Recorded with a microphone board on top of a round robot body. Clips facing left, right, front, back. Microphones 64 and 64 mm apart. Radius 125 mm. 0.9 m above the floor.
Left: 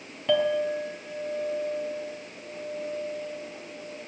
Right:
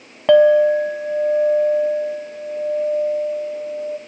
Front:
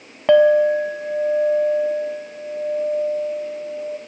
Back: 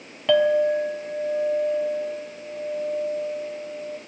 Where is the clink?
55° right, 0.7 m.